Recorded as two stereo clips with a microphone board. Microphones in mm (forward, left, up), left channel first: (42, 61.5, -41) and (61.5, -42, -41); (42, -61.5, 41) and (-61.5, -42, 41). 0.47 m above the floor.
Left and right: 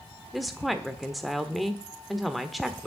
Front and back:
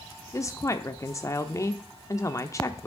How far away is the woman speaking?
About 0.9 m.